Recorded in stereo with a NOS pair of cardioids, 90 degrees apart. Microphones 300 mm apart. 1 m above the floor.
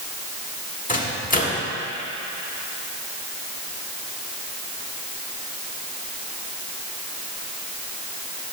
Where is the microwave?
25° left, 1.7 m.